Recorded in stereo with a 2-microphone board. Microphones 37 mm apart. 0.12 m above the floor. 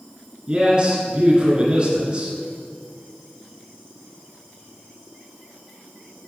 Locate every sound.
0.5 s a man speaking: 30° right (ahead or behind), 1.6 m